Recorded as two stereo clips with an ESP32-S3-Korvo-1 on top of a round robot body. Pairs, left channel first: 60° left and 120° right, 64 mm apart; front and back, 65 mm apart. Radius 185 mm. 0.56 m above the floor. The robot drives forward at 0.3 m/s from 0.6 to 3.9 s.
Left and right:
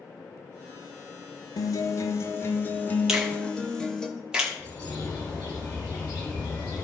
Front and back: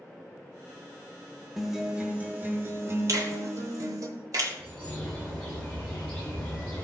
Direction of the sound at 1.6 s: 90° left.